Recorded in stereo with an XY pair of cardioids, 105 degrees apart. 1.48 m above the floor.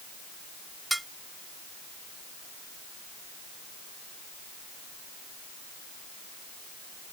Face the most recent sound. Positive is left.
turn(degrees=-10)